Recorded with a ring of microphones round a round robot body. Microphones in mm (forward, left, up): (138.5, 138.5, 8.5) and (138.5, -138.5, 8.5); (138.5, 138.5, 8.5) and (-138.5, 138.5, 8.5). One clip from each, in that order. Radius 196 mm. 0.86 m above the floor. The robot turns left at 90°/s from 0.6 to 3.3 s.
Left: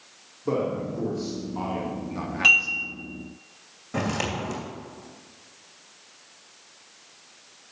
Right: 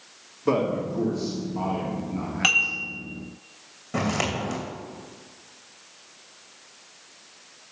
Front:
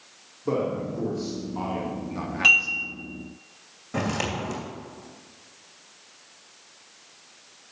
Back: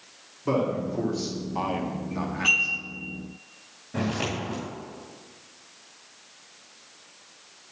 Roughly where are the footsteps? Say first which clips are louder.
Right 2 dB, front 1 dB; ahead.